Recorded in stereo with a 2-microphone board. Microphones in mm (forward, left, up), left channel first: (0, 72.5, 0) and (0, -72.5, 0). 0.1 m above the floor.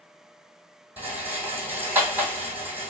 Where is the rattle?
10° right (ahead or behind), 1.3 m.